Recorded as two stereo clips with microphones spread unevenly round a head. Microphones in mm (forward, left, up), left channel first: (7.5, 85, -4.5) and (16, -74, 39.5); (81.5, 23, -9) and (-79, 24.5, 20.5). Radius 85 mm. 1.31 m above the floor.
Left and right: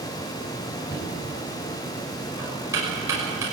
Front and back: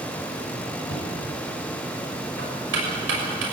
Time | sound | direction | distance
0.9 | knocking | 160° right | 6 m